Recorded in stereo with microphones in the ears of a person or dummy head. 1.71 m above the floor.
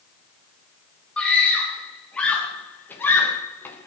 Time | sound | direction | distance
1.2 | a scream | 10° left (ahead or behind) | 3.5 m